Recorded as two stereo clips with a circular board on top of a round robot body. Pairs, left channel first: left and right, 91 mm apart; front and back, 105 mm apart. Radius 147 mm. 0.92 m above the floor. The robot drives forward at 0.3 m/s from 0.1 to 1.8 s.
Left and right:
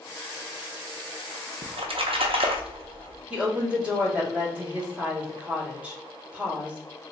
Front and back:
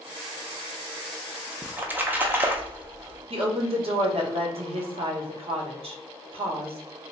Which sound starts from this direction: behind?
A woman speaking, at 3.3 s.